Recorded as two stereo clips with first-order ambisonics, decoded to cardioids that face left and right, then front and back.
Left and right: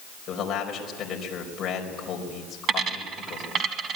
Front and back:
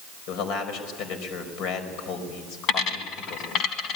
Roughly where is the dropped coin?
Ahead right.